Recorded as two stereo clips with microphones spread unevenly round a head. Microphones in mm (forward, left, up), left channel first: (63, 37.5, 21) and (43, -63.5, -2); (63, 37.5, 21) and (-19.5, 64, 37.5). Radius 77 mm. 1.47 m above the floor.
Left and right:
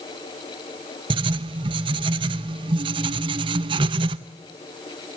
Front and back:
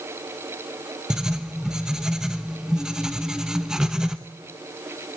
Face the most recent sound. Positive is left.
turn(degrees=-130)